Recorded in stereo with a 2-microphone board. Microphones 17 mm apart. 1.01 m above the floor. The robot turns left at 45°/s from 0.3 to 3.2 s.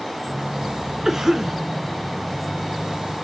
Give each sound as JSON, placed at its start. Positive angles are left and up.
{"t": 1.1, "sound": "a cough", "side_deg": -30, "distance_m": 0.7}